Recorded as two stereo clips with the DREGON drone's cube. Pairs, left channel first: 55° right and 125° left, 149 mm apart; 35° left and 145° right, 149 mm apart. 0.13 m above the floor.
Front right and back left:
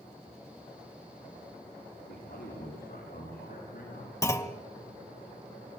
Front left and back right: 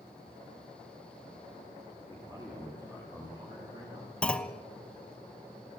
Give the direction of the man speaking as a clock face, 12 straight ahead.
3 o'clock.